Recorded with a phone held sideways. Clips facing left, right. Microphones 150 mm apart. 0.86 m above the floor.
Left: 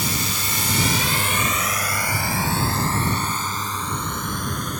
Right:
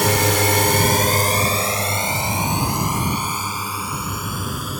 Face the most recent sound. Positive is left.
turn(degrees=-5)  # may be behind; listen again after turning